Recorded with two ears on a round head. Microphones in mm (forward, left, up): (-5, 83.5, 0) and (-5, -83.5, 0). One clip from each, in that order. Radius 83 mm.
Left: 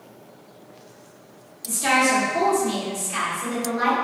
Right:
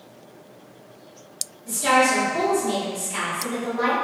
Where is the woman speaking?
40° left (ahead or behind), 1.8 m.